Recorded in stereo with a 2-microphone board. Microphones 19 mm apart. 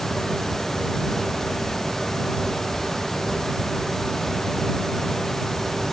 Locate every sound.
Only background noise.